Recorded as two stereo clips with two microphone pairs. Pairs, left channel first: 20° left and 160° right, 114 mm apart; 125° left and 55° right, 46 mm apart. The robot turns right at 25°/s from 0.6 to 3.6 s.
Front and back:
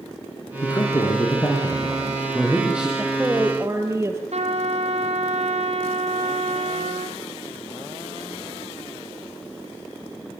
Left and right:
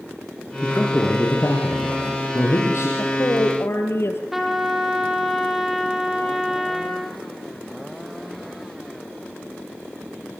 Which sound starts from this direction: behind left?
A woman speaking, at 3.0 s.